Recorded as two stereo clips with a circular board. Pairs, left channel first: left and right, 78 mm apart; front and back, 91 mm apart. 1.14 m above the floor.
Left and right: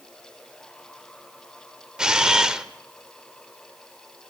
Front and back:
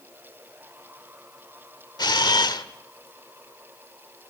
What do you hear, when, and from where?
2.0 s a camera shutter: 10° right, 1.1 m